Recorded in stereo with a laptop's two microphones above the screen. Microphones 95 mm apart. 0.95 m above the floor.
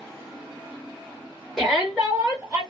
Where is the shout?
Centre (ahead or behind), 0.8 m; by 2.6 s 15° right (ahead or behind), 1.3 m.